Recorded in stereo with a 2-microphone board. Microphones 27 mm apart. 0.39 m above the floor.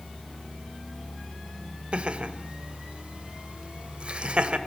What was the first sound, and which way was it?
Laughter, 45° right (ahead or behind).